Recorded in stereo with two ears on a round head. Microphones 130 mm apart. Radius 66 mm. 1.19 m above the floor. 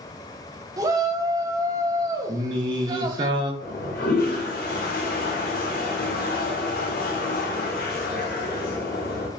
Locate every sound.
0.8 s a shout: 25° right (ahead or behind), 0.6 m
2.3 s singing: 35° right (ahead or behind), 0.6 m
3.6 s a toilet flushing: 70° left (ahead or behind), 1.1 m